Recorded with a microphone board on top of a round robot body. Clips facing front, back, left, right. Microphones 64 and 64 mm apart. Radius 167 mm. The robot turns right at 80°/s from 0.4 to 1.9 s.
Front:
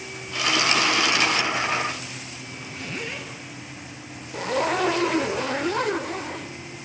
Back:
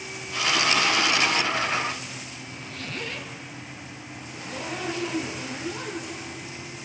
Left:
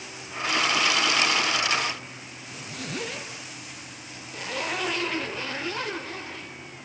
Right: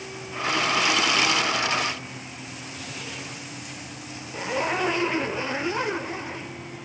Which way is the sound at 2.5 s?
75° left.